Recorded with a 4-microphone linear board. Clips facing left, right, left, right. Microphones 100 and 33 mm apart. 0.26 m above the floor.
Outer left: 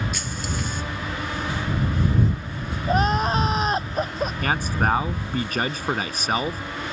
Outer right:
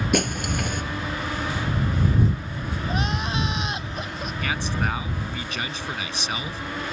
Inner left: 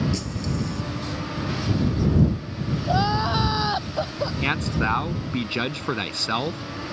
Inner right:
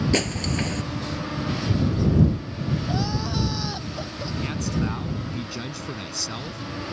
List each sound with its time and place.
0.1 s breaking glass: 70° right (ahead or behind)
2.9 s crying: 45° left (ahead or behind)
4.4 s a man speaking: 50° left (ahead or behind)